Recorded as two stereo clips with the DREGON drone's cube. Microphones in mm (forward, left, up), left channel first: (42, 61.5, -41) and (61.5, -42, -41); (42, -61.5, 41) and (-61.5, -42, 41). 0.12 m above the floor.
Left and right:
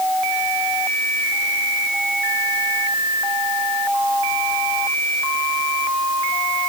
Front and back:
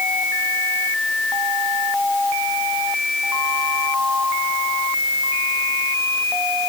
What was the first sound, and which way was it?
Only background noise.